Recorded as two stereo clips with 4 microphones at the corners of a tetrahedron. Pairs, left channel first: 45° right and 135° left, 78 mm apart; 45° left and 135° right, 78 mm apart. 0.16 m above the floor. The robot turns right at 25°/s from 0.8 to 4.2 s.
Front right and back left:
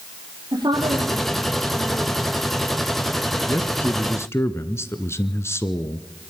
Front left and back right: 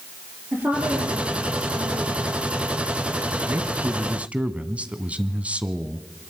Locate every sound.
0.5 s a woman speaking: 160° left, 5 m; by 2.3 s 165° right, 5 m
3.5 s a man speaking: 90° right, 1.4 m; by 6.1 s 70° right, 1.4 m